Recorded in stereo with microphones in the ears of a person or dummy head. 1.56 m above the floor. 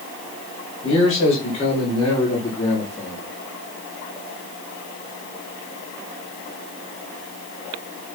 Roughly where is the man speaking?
Left.